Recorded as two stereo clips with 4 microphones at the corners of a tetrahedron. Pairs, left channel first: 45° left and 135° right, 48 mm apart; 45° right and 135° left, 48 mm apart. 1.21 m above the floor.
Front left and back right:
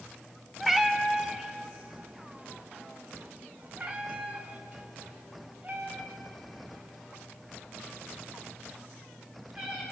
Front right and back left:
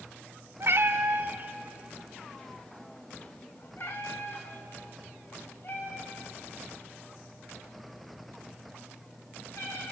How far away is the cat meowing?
About 1.5 m.